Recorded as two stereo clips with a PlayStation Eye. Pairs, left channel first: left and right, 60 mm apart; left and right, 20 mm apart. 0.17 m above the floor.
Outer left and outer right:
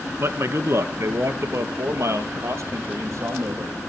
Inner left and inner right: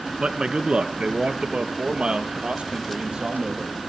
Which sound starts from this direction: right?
A man speaking, at 0.2 s.